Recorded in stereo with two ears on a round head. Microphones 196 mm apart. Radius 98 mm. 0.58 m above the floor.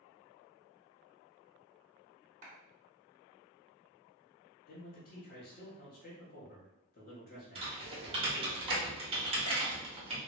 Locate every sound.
2.4 s a clap: 35° right (ahead or behind), 1.2 m
4.7 s a man speaking: 40° left (ahead or behind), 1.0 m
7.5 s typing on a keyboard: 25° right (ahead or behind), 1.0 m